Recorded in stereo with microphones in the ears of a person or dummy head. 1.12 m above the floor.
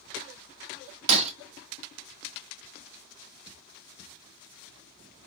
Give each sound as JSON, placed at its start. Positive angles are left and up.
{"t": 1.1, "sound": "breaking glass", "side_deg": -30, "distance_m": 0.6}